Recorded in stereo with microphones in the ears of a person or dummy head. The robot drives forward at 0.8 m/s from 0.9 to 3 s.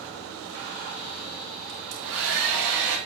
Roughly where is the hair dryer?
Right.